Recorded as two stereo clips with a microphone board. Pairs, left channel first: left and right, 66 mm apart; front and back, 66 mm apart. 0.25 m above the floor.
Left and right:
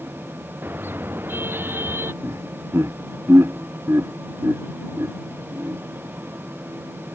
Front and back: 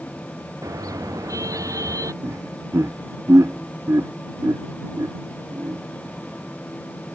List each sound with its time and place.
0.6 s a car horn: 150° right; by 2.1 s 145° right
2.2 s laughter: 140° right